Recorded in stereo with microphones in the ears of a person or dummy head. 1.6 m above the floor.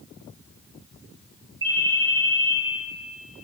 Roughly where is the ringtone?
Right.